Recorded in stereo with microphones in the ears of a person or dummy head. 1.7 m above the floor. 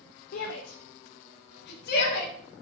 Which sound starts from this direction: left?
A shout, at 0.3 s.